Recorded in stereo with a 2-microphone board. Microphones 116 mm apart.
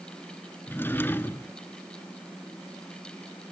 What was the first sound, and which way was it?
A drawer, 20° left (ahead or behind).